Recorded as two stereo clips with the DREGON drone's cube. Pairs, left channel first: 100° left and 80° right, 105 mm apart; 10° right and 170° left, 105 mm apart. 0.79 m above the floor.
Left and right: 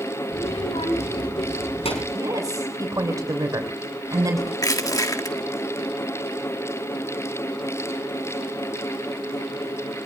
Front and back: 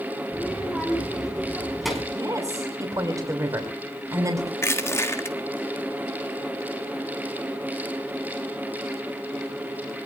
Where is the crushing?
50° left, 1.7 m.